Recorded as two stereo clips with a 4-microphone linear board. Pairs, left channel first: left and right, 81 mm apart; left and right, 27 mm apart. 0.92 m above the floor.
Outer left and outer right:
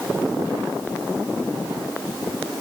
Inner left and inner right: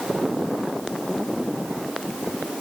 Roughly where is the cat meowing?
No cat meowing in this recording.